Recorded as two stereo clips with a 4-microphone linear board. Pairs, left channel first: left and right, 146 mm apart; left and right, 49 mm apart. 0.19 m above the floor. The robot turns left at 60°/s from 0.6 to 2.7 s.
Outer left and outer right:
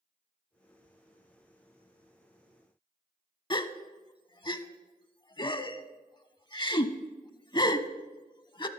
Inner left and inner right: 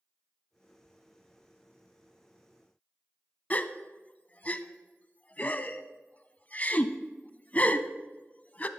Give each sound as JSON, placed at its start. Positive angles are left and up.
{"t": 3.5, "sound": "a gasp", "side_deg": 35, "distance_m": 0.5}